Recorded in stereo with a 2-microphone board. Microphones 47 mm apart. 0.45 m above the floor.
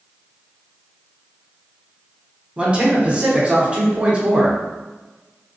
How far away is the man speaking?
About 0.8 m.